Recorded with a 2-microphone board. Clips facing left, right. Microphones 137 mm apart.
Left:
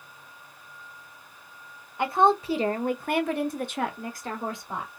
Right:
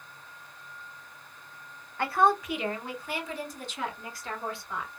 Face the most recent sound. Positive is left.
turn(degrees=40)  # may be behind; listen again after turning